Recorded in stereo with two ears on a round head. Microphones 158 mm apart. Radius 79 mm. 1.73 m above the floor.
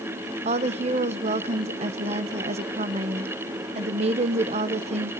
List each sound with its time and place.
0.5 s a woman speaking: 35° right (ahead or behind), 0.9 m